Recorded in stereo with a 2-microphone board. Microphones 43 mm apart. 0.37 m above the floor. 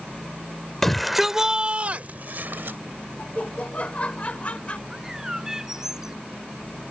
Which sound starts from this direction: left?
Laughter, at 3.2 s.